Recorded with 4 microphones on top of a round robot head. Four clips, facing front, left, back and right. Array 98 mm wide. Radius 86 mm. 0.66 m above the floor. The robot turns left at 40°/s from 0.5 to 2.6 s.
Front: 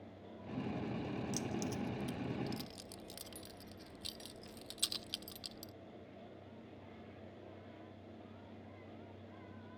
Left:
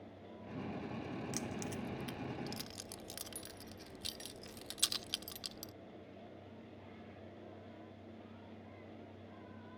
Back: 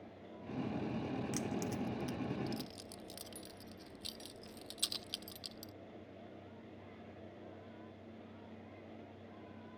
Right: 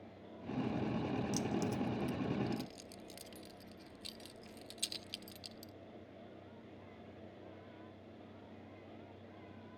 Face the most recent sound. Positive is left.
turn(degrees=95)